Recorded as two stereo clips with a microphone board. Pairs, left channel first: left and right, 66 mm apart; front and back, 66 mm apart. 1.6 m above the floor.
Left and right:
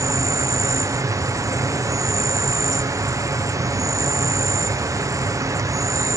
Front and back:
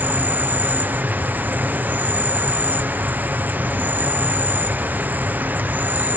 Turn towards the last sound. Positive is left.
turn(degrees=-120)